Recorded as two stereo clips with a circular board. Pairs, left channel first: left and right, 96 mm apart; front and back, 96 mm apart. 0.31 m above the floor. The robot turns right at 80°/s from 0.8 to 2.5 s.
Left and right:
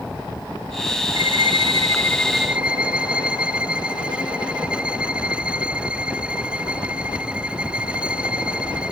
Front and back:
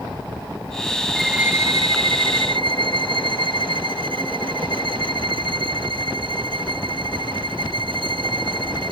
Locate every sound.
1.1 s a violin: 85° left, 0.5 m; by 8.9 s 170° right, 0.5 m